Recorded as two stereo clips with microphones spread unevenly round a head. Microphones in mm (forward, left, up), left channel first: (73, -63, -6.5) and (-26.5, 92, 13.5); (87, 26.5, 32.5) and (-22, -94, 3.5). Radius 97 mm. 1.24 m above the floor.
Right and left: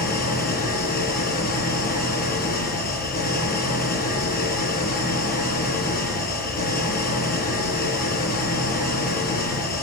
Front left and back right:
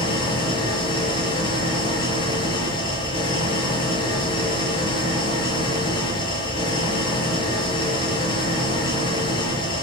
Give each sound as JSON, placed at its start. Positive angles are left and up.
{"t": 0.0, "sound": "an engine running", "azimuth_deg": -10, "distance_m": 6.0}